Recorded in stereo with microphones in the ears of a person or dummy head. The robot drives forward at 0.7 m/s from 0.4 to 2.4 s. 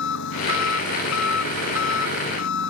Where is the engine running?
75° left (ahead or behind).